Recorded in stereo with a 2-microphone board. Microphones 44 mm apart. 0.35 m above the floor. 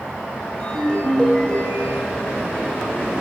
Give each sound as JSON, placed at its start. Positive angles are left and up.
{"t": 0.6, "sound": "a ringtone", "side_deg": 20, "distance_m": 0.6}